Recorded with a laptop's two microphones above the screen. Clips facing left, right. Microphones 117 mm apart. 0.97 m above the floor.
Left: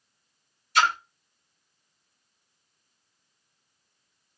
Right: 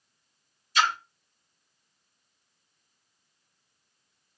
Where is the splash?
65° left (ahead or behind), 0.9 m.